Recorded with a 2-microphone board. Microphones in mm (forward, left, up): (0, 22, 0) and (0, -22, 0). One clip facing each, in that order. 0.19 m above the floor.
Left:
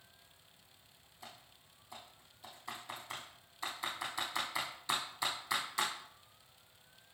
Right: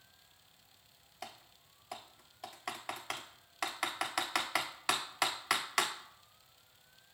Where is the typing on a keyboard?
80° right, 0.9 m.